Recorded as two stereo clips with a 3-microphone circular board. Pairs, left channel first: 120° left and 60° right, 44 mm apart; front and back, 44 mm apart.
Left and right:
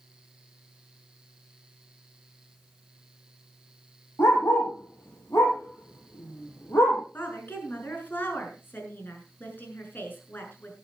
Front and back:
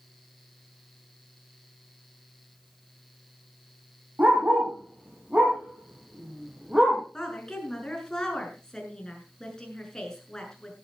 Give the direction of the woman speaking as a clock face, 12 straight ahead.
9 o'clock.